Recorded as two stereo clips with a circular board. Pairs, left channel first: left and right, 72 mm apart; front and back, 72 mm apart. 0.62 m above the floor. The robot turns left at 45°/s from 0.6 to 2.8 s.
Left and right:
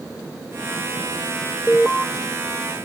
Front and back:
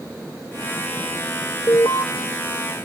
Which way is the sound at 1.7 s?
20° left.